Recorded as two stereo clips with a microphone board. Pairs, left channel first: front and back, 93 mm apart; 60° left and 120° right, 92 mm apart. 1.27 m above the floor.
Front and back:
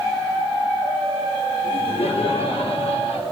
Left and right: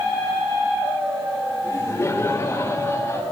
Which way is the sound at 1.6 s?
Straight ahead.